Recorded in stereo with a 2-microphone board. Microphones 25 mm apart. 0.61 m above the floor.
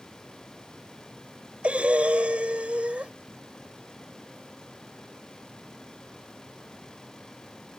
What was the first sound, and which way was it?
Breathing, 70° right (ahead or behind).